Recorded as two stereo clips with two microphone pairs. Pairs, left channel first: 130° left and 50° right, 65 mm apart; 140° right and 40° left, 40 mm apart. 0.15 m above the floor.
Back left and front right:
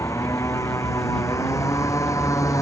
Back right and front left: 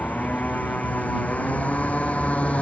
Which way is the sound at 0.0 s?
170° left.